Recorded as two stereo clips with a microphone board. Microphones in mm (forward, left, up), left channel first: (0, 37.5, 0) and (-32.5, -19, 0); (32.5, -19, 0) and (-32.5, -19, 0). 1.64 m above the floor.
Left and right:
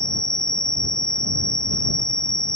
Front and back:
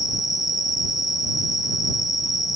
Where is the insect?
20° right.